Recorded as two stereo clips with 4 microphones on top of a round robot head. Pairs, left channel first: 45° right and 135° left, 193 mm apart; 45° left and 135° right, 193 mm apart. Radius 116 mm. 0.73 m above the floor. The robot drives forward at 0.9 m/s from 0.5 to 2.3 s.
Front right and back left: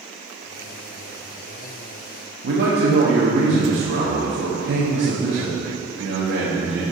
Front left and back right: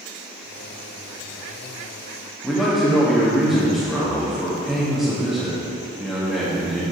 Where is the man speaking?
135° left, 1.5 m.